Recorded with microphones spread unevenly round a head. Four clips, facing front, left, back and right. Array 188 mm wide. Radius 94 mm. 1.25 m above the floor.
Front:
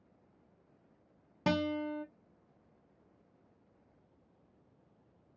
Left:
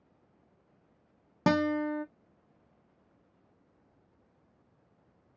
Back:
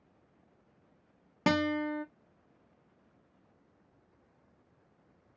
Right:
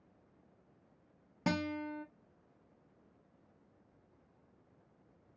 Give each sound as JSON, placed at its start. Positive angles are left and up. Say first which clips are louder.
{"t": 1.5, "sound": "a guitar", "louder": "left 9 dB, back 3 dB", "azimuth_deg": 110, "distance_m": 0.9}